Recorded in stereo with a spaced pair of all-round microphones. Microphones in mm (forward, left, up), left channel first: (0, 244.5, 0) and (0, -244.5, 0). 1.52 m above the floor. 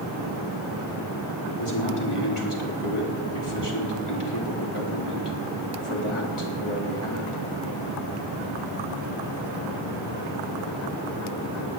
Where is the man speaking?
90° left, 4 m.